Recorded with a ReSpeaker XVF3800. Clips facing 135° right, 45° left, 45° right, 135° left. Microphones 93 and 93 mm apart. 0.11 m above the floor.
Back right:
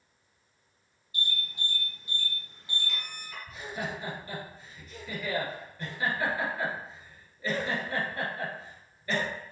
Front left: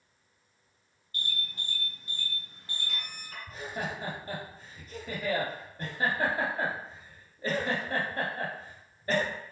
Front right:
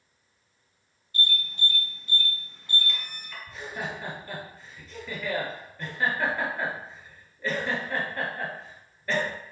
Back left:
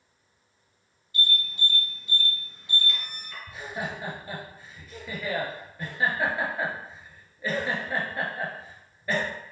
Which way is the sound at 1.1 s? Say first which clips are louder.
Back right 2 dB, even; 55° left.